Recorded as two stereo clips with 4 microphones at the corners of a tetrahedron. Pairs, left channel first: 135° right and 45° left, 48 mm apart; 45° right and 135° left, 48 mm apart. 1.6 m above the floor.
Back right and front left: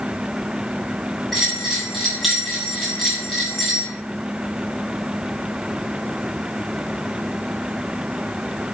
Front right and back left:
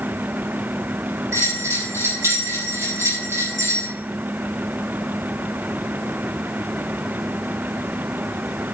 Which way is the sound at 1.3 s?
135° left.